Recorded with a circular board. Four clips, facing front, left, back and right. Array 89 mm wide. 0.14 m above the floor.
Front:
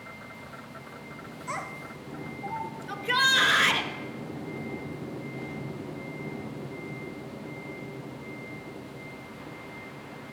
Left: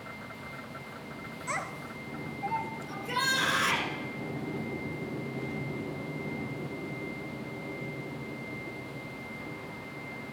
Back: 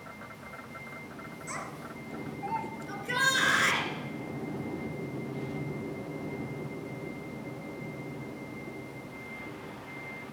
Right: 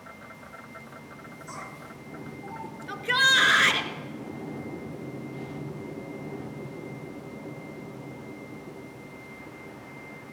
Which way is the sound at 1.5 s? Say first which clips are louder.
Left 6 dB, front 5 dB; 75° left.